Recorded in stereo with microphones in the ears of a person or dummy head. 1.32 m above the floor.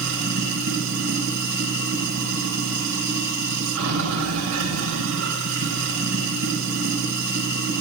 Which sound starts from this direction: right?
Running water, at 0.0 s.